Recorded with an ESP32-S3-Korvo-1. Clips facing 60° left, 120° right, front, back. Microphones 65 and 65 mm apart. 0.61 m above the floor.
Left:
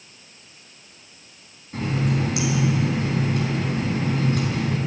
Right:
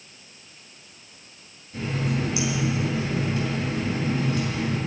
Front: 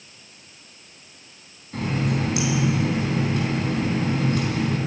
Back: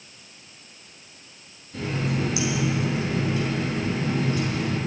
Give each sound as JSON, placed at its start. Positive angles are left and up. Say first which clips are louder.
{"t": 1.7, "sound": "a running tap", "louder": "left 3 dB, front 2 dB", "azimuth_deg": 30, "distance_m": 3.0}